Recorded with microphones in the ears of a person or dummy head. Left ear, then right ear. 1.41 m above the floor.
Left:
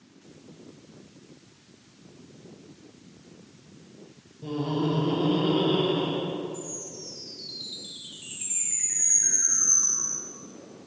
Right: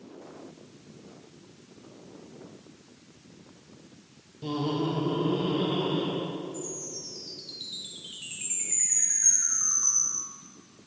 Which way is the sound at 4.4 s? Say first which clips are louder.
Left 1 dB; 40° right (ahead or behind).